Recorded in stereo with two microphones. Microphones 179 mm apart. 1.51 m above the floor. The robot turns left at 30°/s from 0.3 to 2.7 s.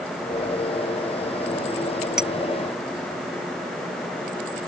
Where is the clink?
Centre (ahead or behind); by 2.3 s 5° right (ahead or behind).